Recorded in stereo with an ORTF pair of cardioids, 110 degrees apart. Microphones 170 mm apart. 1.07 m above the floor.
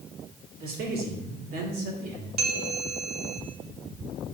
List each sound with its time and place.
0.6 s a man speaking: 60° right, 2 m
2.4 s a bell: 65° right, 1.4 m